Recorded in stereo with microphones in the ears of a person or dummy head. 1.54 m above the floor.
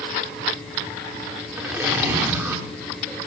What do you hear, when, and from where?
1.6 s a zipper: 5° right (ahead or behind), 1.8 m